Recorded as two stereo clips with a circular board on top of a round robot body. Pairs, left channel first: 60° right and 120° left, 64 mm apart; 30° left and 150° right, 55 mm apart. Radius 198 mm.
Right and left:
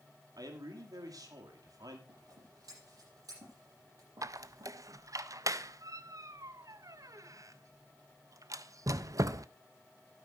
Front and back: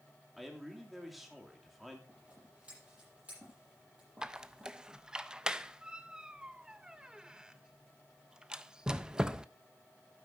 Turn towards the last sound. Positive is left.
turn(degrees=135)